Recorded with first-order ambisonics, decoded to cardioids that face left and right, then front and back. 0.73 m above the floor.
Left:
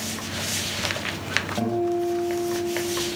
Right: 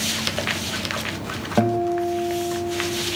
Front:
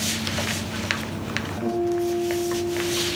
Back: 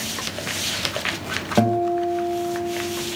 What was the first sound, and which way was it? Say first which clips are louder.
A guitar: right 9 dB, back 5 dB; 150° right.